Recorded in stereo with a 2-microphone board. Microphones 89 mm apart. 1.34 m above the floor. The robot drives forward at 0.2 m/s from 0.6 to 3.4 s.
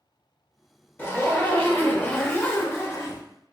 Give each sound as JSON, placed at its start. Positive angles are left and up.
{"t": 1.0, "sound": "a zipper", "side_deg": 20, "distance_m": 1.0}